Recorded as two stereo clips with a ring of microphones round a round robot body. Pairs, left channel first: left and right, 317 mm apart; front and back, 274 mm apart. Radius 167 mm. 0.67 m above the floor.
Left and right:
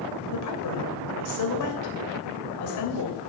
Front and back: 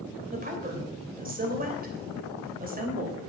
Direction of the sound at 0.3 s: 120° left.